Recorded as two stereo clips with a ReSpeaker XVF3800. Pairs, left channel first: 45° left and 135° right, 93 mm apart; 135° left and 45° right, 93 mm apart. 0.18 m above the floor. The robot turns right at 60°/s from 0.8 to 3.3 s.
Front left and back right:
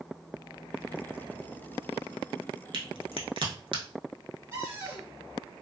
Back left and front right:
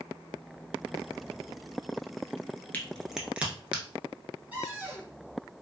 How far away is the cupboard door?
About 1.8 m.